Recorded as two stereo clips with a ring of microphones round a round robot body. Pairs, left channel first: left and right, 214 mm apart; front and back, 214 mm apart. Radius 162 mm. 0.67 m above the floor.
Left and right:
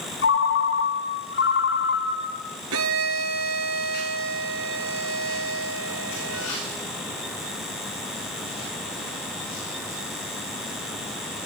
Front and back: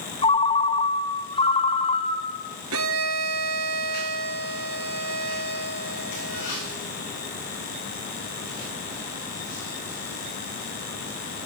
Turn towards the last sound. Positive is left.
turn(degrees=-135)